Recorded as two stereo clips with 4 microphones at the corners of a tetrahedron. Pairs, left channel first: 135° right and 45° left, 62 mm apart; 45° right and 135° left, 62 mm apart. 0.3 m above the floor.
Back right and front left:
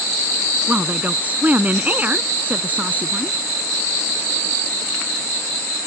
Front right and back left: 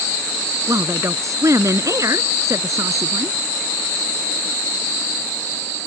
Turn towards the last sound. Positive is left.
turn(degrees=105)